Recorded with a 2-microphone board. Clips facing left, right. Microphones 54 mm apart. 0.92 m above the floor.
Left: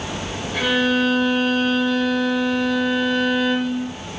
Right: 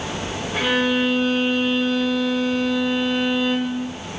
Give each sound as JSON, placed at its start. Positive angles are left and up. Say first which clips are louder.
{"t": 0.5, "sound": "a violin", "louder": "left 1 dB", "side_deg": -20, "distance_m": 3.5}